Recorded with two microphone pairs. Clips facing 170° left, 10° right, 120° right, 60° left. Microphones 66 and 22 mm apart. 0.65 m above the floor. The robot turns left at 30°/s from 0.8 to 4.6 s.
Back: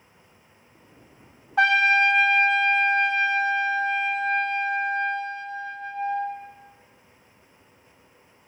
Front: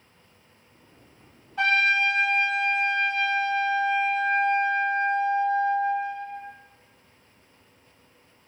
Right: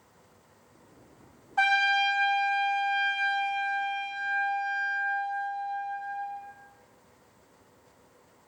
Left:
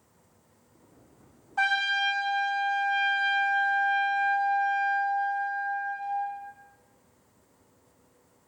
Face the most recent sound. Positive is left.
turn(degrees=60)